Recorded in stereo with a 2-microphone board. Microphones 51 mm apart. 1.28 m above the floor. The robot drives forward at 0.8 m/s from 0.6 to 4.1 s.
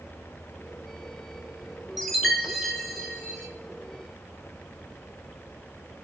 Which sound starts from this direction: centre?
A chime, at 2.0 s.